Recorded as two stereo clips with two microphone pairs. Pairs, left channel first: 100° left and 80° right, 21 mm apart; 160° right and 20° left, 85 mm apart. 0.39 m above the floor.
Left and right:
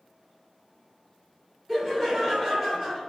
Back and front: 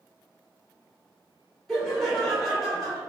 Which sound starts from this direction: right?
Laughter, at 1.7 s.